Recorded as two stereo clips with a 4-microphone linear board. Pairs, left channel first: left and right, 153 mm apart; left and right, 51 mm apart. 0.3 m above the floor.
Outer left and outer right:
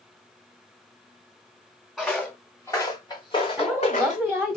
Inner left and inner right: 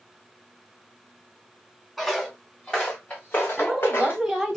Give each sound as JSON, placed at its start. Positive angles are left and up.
{"t": 2.0, "sound": "footsteps", "side_deg": 5, "distance_m": 2.5}
{"t": 3.6, "sound": "a woman speaking", "side_deg": 0, "distance_m": 2.0}